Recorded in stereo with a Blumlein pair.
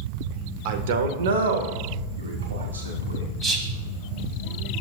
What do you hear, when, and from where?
0.7 s a man speaking: 45° right, 0.9 m; by 3.3 s 75° right, 2 m
3.4 s whispering: 20° right, 1.0 m